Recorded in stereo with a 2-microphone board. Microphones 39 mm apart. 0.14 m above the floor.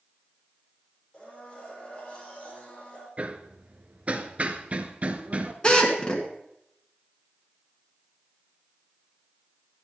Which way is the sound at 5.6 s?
25° left (ahead or behind).